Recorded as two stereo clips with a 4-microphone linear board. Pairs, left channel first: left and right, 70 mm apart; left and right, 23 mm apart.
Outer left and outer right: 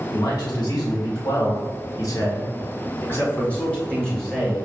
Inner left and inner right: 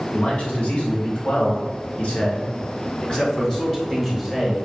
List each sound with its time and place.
0.1 s a man speaking: 70° left (ahead or behind), 1.9 m; by 4.7 s 5° left (ahead or behind), 1.8 m